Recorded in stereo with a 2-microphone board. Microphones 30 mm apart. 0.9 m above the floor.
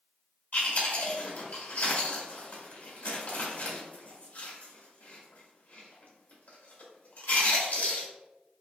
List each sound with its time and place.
0.5 s chewing: 65° left (ahead or behind), 1.6 m